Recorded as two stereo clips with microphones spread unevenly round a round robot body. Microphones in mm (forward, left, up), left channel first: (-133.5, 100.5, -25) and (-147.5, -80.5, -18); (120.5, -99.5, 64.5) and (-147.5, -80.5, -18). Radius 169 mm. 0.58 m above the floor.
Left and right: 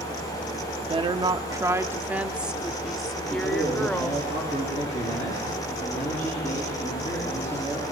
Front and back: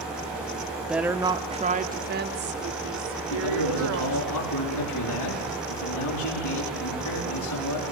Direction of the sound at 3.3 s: 20° right.